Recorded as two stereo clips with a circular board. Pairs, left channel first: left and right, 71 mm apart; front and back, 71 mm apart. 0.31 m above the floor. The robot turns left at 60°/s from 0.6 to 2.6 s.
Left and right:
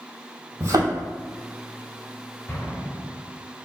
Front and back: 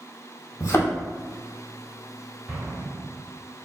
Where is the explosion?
115° left, 1.5 m; by 3.2 s 105° left, 1.5 m.